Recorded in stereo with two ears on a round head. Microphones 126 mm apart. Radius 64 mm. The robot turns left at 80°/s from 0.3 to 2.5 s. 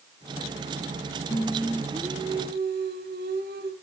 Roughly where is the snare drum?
I don't hear a snare drum.